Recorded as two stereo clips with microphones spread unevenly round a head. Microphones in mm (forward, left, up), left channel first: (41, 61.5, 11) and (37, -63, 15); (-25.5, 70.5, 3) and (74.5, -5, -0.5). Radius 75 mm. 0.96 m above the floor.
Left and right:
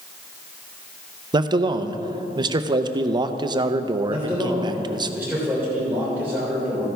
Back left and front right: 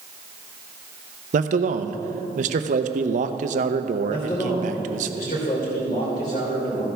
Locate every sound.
1.3 s a man speaking: 40° right, 0.6 m
4.1 s a man speaking: 170° right, 3 m